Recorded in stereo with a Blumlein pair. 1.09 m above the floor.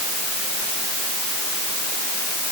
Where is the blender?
I don't hear a blender.